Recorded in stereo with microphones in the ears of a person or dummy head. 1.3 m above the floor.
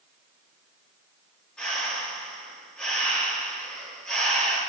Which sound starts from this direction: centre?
Breathing, at 1.6 s.